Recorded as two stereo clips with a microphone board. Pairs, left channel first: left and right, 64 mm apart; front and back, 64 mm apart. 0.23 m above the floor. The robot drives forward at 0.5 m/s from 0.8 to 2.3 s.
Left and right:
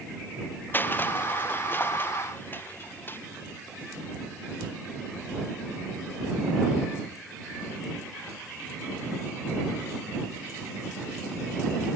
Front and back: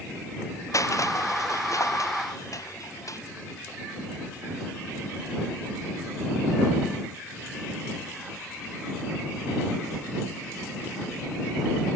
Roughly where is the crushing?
Ahead left.